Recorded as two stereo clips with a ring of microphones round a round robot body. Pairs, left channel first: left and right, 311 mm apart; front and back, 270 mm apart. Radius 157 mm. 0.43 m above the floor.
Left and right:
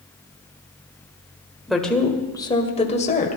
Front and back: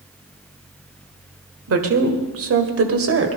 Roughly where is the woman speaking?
Behind.